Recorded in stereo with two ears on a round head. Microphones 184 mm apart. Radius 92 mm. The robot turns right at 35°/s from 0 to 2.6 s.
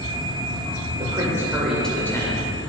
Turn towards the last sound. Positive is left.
turn(degrees=30)